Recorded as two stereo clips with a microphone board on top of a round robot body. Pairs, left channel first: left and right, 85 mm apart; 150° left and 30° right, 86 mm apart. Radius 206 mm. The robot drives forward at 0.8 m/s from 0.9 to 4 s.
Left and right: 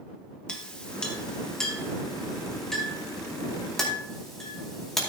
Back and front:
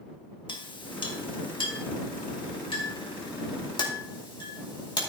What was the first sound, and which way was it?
A clink, 170° left.